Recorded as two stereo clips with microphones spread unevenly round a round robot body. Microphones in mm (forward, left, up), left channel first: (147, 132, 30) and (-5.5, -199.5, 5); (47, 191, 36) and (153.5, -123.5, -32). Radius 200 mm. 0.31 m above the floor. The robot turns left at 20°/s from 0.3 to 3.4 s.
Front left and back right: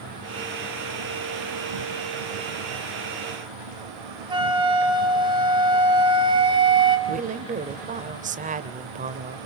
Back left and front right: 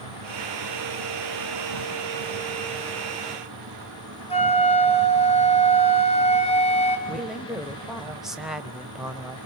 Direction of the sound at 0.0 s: 70° right.